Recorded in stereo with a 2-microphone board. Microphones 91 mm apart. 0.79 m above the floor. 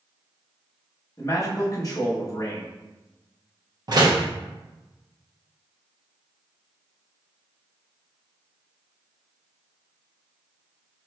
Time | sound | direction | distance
1.2 | a man speaking | 40° left (ahead or behind) | 1.0 m
3.9 | a door slam | 50° right (ahead or behind) | 0.7 m